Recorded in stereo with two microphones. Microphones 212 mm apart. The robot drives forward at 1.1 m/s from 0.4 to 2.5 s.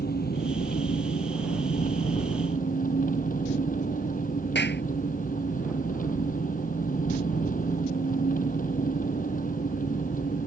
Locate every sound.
0.0 s an engine running: 50° left (ahead or behind); by 10.5 s 40° left (ahead or behind)
4.5 s a clap: 55° left (ahead or behind)